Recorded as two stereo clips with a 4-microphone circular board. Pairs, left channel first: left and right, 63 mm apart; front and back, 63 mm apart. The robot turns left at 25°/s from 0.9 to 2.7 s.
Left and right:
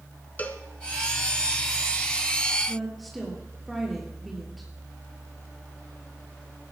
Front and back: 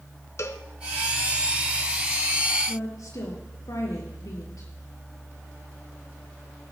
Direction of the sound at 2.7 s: Straight ahead.